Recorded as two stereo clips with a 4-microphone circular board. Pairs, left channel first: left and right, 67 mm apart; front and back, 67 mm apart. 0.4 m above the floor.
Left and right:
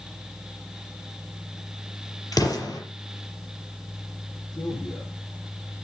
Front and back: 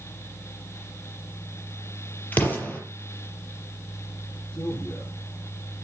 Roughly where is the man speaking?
Left.